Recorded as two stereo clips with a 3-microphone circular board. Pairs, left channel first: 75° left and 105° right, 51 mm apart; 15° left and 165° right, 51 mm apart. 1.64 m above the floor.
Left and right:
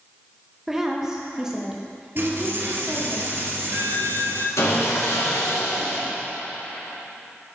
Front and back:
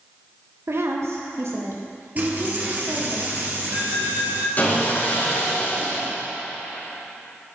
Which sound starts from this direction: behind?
A woman speaking, at 0.7 s.